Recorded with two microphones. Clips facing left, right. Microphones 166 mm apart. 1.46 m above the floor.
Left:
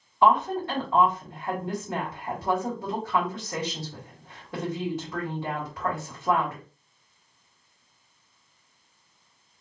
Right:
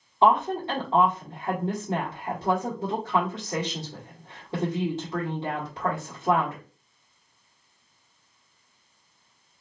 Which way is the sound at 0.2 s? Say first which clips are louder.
Even; 25° right (ahead or behind).